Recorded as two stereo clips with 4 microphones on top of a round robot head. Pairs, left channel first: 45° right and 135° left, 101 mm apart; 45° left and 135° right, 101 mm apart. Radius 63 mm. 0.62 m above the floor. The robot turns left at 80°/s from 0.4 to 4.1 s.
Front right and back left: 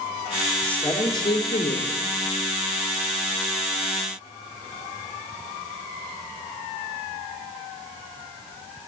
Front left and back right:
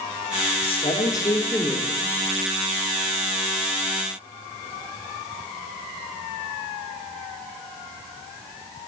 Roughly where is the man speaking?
Ahead left.